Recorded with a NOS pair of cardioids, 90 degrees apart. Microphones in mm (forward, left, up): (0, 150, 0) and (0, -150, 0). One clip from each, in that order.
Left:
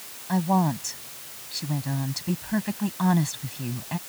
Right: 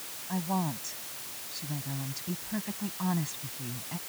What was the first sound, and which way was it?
A woman speaking, 60° left.